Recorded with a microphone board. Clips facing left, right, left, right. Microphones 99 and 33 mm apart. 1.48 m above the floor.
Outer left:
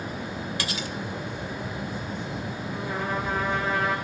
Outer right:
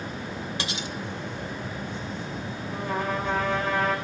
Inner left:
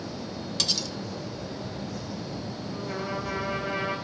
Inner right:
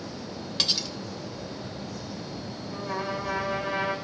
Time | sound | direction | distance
0.6 | cutlery clinking | 25° right (ahead or behind) | 0.7 m
2.7 | a trumpet | 60° right (ahead or behind) | 5.5 m